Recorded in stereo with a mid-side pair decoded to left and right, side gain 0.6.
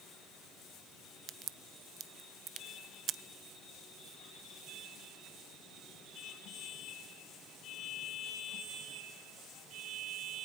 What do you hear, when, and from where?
1.3 s a crack: 50° right, 0.7 m